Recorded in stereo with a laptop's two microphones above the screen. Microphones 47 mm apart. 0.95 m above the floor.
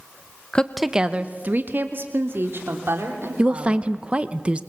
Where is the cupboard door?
I don't hear a cupboard door.